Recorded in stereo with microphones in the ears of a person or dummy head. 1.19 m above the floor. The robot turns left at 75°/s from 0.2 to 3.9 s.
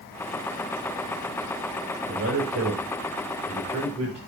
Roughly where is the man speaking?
Right.